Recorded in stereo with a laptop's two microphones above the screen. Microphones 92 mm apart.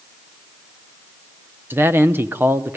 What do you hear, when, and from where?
1.7 s a man speaking: 25° right (ahead or behind), 0.7 m